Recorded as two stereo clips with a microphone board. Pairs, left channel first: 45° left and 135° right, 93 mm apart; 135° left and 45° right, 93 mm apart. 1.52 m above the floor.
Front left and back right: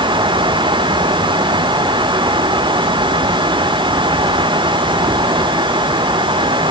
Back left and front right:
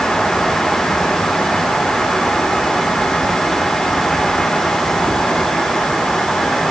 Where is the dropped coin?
I don't hear a dropped coin.